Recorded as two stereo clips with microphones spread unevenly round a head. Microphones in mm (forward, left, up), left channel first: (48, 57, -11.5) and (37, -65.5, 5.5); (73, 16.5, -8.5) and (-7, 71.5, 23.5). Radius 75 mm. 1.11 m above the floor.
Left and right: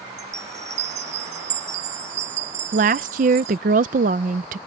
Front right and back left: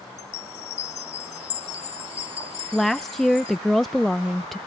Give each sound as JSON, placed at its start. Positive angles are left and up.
{"t": 0.2, "sound": "a chime", "azimuth_deg": -70}
{"t": 2.7, "sound": "a woman speaking", "azimuth_deg": -110}